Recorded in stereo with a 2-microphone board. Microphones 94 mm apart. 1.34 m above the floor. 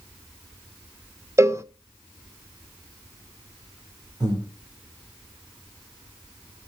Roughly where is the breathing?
Right.